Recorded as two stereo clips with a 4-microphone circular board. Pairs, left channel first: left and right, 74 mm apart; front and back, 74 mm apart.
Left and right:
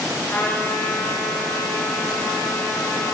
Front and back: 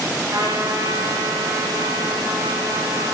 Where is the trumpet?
150° left, 8 m.